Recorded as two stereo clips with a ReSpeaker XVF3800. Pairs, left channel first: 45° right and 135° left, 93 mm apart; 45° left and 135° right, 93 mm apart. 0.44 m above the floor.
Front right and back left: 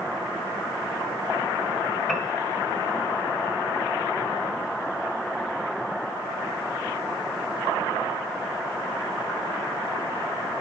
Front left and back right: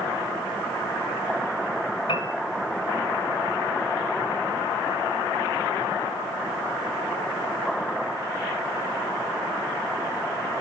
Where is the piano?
40° left, 2.0 m.